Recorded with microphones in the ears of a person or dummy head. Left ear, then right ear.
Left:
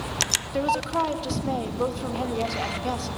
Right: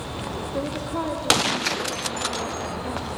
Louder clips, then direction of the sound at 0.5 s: Left 4 dB; 70° left (ahead or behind).